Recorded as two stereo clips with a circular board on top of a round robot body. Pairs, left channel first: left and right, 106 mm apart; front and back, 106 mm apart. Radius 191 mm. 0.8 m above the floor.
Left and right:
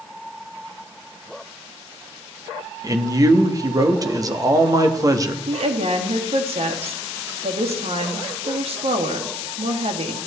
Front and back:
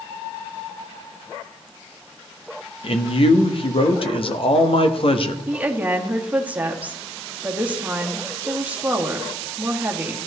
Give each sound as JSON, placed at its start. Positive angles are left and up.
{"t": 2.8, "sound": "a man speaking", "azimuth_deg": -35, "distance_m": 1.4}
{"t": 5.5, "sound": "a woman speaking", "azimuth_deg": -105, "distance_m": 2.0}